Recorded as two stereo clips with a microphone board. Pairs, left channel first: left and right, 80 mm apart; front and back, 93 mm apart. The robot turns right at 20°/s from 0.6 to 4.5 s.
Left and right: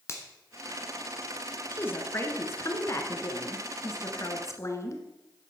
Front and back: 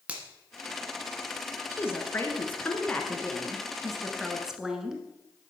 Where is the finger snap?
115° left, 1.5 m.